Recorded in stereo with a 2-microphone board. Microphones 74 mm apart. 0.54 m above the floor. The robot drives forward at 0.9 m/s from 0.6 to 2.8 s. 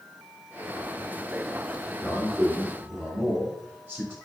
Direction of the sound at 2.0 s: 25° right (ahead or behind).